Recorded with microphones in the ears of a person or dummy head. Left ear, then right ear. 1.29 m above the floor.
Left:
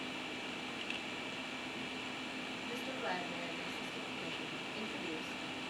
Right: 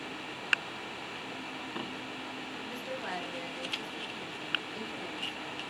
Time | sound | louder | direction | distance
2.7 | a woman speaking | right 1 dB | 20° right (ahead or behind) | 1.3 m